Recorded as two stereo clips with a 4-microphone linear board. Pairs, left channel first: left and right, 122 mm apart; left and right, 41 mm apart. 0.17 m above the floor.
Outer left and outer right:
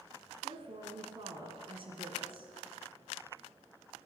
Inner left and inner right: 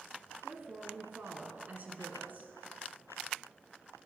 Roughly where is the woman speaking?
Right.